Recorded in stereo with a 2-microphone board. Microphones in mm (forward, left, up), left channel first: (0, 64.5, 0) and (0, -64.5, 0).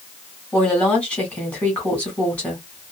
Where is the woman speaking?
10° left (ahead or behind), 1.6 m.